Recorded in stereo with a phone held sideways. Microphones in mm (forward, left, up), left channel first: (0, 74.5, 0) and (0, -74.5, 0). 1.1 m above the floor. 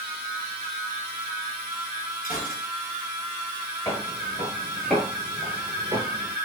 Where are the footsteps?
20° left (ahead or behind), 1.3 m; by 6.3 s 30° right (ahead or behind), 1.2 m.